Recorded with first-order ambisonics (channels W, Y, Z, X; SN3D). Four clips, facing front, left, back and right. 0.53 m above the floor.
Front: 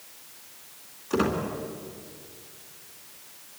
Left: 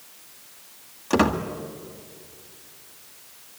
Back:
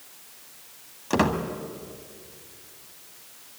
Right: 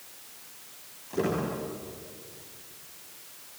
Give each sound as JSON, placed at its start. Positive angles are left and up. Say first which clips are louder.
{"t": 1.1, "sound": "a squeak", "louder": "left 8 dB, back 2 dB", "azimuth_deg": 130, "distance_m": 2.0}